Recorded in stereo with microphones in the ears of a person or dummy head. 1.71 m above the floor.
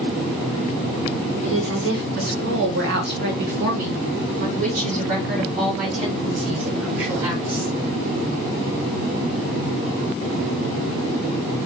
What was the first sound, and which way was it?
A woman speaking, 60° right (ahead or behind).